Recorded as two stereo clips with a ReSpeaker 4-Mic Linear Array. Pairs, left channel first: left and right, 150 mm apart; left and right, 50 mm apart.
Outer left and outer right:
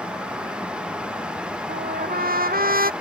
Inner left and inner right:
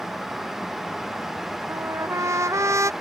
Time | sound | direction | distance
1.7 | a trumpet | 75° right (ahead or behind) | ?